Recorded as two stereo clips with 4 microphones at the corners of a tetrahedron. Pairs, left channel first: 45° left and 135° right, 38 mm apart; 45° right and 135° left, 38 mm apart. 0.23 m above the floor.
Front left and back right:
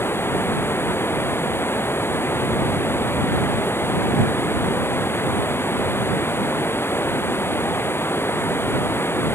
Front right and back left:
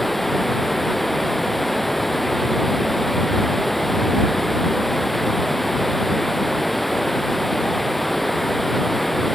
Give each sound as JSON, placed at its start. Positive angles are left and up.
{"t": 0.0, "sound": "running water", "azimuth_deg": 40}